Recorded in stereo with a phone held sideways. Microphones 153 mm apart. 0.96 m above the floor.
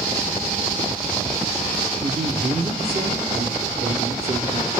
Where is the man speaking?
45° right (ahead or behind), 3 m.